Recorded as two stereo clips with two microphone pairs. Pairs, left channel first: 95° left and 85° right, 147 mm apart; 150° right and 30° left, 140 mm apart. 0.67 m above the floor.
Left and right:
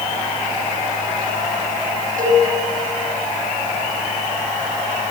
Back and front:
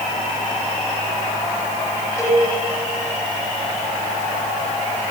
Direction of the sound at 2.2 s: 80° right.